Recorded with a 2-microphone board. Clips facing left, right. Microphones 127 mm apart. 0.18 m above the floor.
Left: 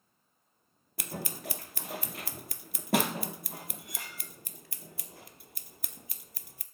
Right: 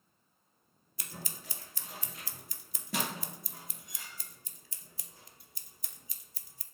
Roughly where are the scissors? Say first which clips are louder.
Left 8 dB; left.